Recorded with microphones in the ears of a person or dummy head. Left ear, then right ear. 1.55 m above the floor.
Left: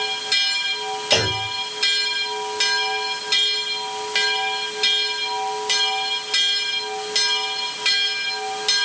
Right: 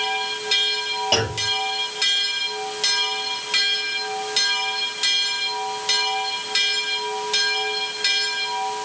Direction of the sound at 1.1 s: Centre (ahead or behind).